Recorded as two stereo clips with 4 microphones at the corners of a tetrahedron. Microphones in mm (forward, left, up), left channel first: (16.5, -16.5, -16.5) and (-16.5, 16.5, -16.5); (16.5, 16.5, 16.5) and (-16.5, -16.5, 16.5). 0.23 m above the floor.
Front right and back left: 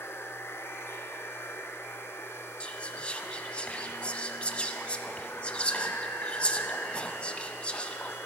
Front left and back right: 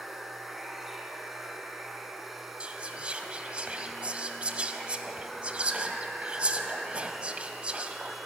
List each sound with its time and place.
0.0 s running water: 50° right, 1.0 m
2.6 s whispering: 90° right, 1.1 m